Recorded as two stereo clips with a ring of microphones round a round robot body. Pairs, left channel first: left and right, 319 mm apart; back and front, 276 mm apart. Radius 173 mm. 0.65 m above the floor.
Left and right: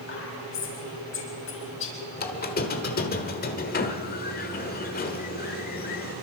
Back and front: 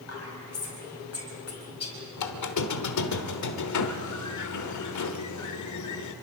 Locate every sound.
0.1 s whispering: 145° left, 5.5 m
2.2 s a squeak: 155° left, 1.2 m